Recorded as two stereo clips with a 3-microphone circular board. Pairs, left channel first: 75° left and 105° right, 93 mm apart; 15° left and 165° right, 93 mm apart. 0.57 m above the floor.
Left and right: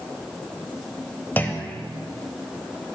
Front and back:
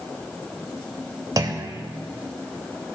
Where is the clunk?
145° left, 0.6 m.